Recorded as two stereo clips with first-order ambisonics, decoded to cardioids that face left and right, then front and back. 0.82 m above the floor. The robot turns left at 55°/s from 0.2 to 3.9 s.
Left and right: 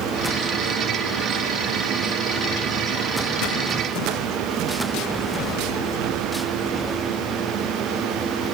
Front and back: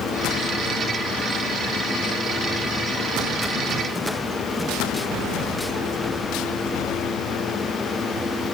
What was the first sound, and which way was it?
Only background noise.